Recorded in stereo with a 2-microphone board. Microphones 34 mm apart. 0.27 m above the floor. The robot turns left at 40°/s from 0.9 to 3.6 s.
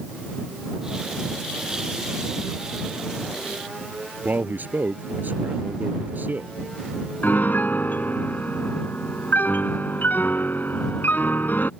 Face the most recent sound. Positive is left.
turn(degrees=65)  # may be behind; listen again after turning